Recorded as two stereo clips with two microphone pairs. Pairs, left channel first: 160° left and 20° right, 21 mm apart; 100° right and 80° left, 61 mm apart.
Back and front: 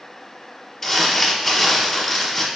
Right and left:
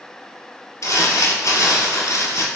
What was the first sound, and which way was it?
Crumpling, 120° right.